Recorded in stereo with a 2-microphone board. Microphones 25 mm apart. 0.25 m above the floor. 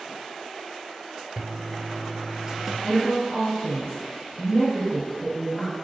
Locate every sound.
1.4 s a toilet flushing: 30° right (ahead or behind), 0.7 m
2.8 s a woman speaking: 55° left (ahead or behind), 2 m